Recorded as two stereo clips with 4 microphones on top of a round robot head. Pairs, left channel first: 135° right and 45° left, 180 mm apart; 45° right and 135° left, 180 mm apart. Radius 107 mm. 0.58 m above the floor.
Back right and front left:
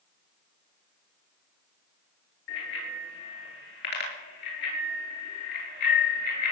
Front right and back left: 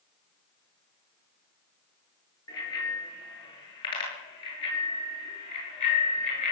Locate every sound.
2.5 s a bicycle bell: 115° right, 8 m; by 6.5 s 100° right, 7 m